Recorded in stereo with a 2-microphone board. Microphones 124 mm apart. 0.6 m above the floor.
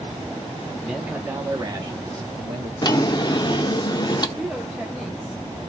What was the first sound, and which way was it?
A man speaking, centre (ahead or behind).